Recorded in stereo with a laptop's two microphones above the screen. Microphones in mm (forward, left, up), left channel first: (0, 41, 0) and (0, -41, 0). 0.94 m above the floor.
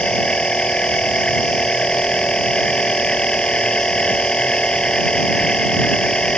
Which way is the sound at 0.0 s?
10° left (ahead or behind).